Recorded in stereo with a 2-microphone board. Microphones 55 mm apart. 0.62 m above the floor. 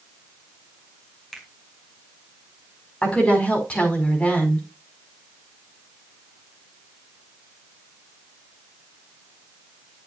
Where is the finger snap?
5° left (ahead or behind), 3 m.